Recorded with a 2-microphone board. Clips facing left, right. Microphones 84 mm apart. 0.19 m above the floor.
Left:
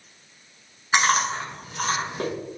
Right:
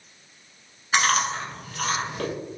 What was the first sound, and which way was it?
Chewing, 25° left (ahead or behind).